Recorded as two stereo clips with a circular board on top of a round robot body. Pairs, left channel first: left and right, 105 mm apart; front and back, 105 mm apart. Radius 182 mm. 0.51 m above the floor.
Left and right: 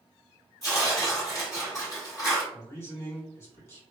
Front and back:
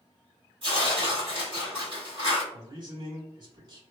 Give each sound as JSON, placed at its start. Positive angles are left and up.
{"t": 0.6, "sound": "tearing paper", "azimuth_deg": 145, "distance_m": 1.8}
{"t": 2.5, "sound": "a man speaking", "azimuth_deg": 150, "distance_m": 1.8}